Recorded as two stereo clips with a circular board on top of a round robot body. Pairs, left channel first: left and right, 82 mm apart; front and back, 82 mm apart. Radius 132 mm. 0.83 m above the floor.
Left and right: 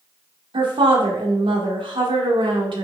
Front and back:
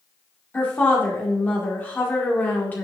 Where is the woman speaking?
70° right, 2 m.